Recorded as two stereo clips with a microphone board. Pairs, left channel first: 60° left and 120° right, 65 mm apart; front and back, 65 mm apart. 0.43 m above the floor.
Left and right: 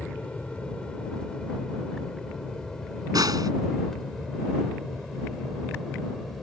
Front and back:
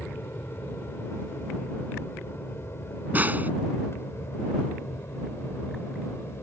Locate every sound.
0.0 s an aircraft: straight ahead; by 6.4 s 30° right
3.1 s a snare drum: 120° right